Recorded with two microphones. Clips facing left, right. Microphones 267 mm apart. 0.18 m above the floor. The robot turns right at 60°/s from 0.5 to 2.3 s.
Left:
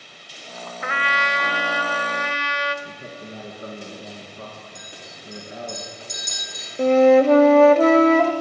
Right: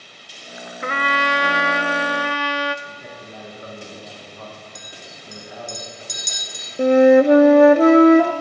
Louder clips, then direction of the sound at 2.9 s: Left 2 dB; 30° left (ahead or behind).